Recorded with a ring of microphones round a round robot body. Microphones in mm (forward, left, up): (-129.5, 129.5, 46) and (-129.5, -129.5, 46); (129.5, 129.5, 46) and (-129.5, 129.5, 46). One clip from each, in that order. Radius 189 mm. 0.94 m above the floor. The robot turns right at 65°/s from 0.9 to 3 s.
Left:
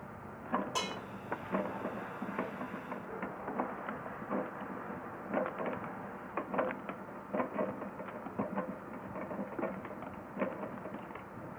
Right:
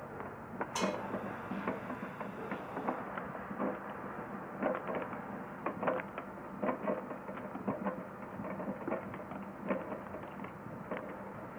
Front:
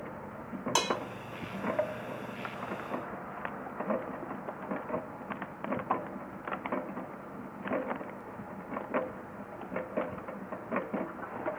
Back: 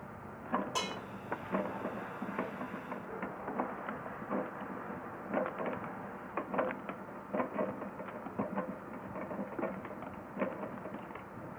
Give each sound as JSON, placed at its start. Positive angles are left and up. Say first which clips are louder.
{"t": 0.8, "sound": "dishes clattering", "louder": "right 1 dB, front 7 dB", "azimuth_deg": 25, "distance_m": 0.9}